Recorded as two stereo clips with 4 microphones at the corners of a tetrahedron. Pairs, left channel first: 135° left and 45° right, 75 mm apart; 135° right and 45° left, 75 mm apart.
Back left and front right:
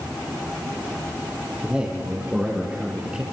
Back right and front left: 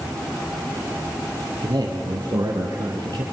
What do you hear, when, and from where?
1.6 s a man speaking: 30° left, 4.5 m; by 3.2 s 25° left, 3 m